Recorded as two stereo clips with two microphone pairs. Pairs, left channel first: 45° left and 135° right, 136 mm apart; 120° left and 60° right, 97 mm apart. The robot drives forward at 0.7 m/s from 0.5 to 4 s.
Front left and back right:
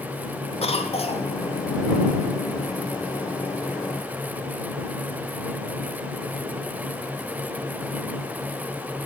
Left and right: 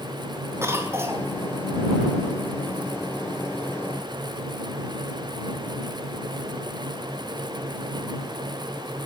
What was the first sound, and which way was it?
A cough, 5° left.